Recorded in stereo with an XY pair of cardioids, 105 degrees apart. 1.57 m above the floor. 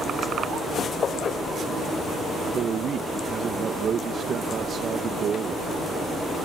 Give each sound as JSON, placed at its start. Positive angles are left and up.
{"t": 2.5, "sound": "a man speaking", "azimuth_deg": -50}